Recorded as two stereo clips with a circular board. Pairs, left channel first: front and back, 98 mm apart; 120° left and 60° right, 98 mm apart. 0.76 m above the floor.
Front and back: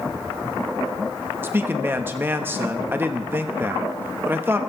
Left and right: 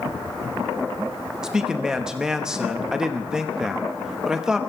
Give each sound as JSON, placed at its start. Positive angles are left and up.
{"t": 1.4, "sound": "a man speaking", "azimuth_deg": -140, "distance_m": 1.1}